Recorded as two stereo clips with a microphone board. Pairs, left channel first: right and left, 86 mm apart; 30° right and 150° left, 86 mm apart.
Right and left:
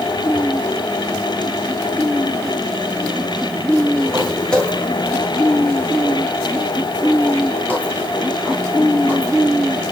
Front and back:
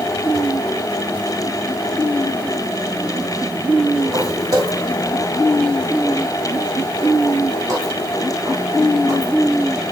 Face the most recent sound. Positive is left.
turn(degrees=-160)